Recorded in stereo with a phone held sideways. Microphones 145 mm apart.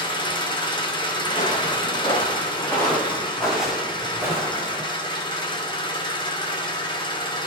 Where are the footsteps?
35° left (ahead or behind), 6 m; by 4.8 s 25° right (ahead or behind), 4.5 m.